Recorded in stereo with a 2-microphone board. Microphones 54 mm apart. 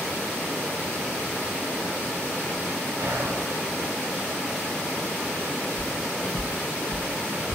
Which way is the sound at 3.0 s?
60° right (ahead or behind).